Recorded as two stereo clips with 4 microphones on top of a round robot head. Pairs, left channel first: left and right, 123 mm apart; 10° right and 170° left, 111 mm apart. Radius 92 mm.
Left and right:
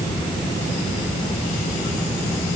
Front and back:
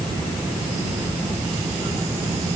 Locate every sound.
Only background noise.